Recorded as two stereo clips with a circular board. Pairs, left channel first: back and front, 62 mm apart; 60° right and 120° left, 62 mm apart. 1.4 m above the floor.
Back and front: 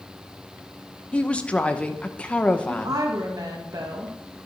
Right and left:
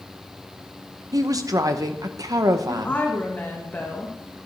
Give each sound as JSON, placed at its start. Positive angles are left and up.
{"t": 1.1, "sound": "a woman speaking", "azimuth_deg": 110, "distance_m": 0.9}
{"t": 2.7, "sound": "a woman speaking", "azimuth_deg": -5, "distance_m": 1.5}